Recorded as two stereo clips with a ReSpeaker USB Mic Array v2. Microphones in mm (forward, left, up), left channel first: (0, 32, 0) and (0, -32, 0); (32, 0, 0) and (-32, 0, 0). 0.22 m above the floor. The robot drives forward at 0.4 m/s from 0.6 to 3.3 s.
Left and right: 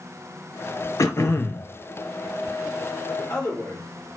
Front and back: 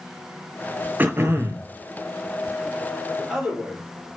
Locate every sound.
1.0 s throat clearing: 120° left, 0.5 m; by 1.7 s 140° left, 0.7 m
3.2 s a man speaking: 105° left, 3 m